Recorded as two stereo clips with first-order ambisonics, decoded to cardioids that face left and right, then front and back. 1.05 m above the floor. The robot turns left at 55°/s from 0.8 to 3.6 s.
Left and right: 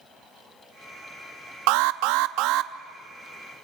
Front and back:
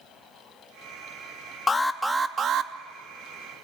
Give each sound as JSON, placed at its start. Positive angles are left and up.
{"t": 1.7, "sound": "an alarm", "azimuth_deg": -75, "distance_m": 0.7}